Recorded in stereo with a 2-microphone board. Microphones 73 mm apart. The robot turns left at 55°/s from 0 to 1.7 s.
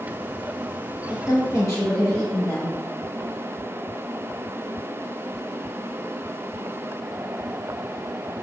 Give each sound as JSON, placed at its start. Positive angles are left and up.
{"t": 1.1, "sound": "a woman speaking", "azimuth_deg": 100, "distance_m": 1.6}